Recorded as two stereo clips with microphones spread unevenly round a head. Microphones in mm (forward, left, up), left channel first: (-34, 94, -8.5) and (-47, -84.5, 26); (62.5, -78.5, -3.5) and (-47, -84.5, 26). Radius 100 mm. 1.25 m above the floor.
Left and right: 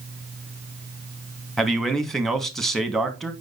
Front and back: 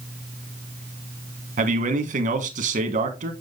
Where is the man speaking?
170° left, 1.6 m.